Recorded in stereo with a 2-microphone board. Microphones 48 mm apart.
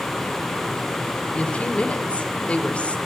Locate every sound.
1.3 s a woman speaking: 30° left (ahead or behind), 1.4 m